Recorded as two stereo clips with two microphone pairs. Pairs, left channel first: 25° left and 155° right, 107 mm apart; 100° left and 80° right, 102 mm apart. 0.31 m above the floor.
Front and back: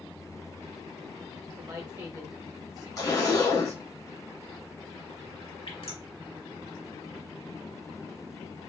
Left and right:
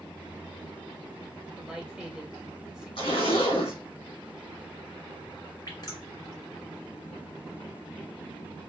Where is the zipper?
75° left, 1.8 m.